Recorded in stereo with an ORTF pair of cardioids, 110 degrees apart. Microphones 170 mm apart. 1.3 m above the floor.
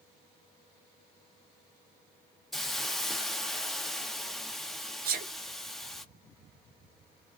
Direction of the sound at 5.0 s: 60° right.